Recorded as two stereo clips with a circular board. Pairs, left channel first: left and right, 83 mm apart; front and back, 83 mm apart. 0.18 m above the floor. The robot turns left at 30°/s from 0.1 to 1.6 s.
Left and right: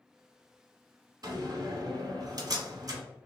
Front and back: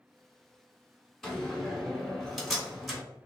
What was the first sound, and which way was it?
A door slam, 80° right.